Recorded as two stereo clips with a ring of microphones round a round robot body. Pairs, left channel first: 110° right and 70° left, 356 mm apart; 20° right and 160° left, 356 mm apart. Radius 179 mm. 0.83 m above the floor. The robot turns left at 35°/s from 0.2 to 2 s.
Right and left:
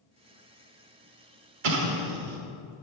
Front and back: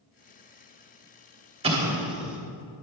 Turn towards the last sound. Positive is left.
turn(degrees=70)